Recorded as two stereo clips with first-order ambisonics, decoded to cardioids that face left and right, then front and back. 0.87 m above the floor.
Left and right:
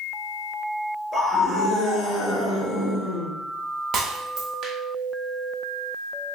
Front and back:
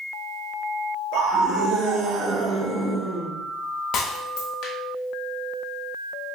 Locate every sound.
1.1 s a scream: 155° left, 1.4 m; by 3.3 s 80° left, 0.9 m
3.9 s breaking glass: 40° right, 0.8 m